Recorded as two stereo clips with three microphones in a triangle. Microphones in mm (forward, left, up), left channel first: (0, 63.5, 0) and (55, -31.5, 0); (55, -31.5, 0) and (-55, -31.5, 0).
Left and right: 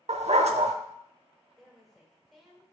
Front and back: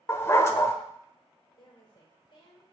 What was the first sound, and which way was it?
A dog barking, 65° right.